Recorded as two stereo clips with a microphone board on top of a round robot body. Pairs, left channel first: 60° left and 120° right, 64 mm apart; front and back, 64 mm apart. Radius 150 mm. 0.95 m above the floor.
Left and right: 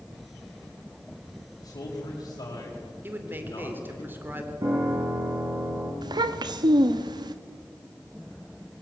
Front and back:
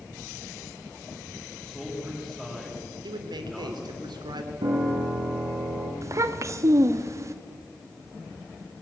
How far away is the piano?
About 8 m.